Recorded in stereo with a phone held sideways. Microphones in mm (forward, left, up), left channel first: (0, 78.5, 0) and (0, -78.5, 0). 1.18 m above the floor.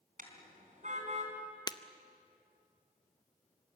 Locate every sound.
0.2 s a car horn: 60° right (ahead or behind), 4 m; by 1.3 s 45° right (ahead or behind), 4 m
1.7 s breaking glass: 25° left (ahead or behind), 0.7 m